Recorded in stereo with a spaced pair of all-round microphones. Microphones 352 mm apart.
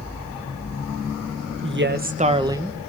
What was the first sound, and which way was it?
A woman speaking, 35° right (ahead or behind).